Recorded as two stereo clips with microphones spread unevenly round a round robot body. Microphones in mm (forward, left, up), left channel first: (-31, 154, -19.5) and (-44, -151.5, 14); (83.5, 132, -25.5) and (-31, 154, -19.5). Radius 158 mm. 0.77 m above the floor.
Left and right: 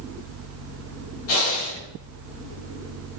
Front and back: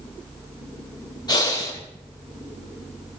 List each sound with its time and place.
1.3 s breathing: 40° left, 4.5 m